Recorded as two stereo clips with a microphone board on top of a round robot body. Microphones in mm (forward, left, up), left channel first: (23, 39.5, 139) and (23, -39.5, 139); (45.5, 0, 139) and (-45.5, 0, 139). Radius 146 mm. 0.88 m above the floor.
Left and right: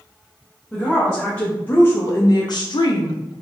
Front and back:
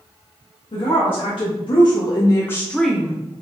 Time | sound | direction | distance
0.7 | a woman speaking | 10° left | 1.3 m